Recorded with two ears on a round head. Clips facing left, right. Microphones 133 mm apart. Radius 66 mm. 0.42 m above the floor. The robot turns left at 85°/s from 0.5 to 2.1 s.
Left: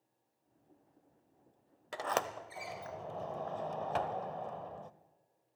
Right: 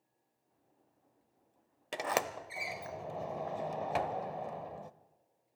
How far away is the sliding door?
About 0.5 m.